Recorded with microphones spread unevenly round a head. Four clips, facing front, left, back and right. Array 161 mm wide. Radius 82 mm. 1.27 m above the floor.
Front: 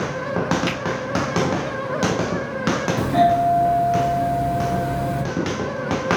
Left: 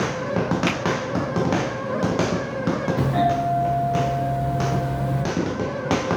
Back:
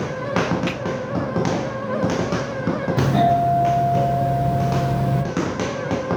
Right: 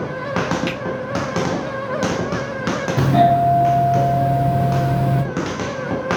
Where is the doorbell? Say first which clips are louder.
Right 9 dB, even; 110° right, 0.7 m.